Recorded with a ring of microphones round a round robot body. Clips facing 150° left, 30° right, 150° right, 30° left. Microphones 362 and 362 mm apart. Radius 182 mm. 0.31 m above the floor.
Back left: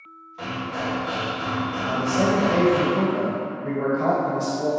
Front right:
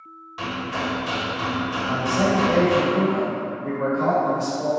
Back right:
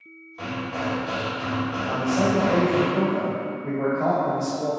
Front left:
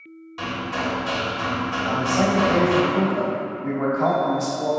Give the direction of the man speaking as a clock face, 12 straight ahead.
10 o'clock.